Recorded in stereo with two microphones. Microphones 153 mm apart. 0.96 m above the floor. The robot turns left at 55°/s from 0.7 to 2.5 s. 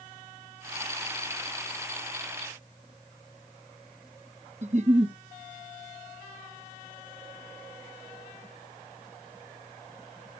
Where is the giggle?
45° right (ahead or behind), 1.2 m.